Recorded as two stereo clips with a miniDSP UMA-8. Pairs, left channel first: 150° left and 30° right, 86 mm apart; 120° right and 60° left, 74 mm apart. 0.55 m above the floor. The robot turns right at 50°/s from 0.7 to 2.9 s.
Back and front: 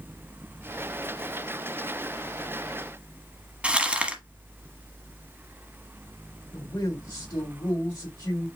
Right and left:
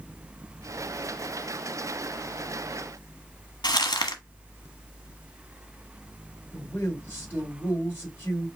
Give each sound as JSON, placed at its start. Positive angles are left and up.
{"t": 3.6, "sound": "crumpling", "azimuth_deg": -105, "distance_m": 1.3}
{"t": 6.5, "sound": "a man speaking", "azimuth_deg": 180, "distance_m": 3.0}